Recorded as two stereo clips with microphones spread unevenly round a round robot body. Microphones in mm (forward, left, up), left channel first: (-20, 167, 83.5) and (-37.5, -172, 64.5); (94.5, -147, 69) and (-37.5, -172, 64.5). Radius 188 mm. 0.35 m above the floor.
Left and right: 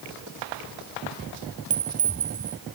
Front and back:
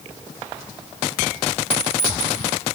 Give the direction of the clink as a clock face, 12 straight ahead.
5 o'clock.